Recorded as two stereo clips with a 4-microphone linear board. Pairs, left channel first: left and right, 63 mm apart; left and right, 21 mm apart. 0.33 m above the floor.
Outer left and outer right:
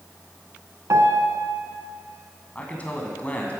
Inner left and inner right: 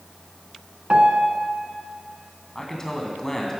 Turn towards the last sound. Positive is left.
turn(degrees=20)  # may be behind; listen again after turning